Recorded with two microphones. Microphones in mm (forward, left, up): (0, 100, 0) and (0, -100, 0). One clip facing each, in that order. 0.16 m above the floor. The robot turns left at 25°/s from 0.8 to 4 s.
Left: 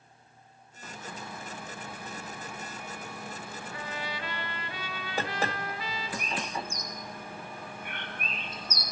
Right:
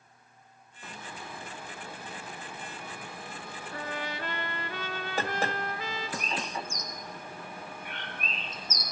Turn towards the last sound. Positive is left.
turn(degrees=70)  # may be behind; listen again after turning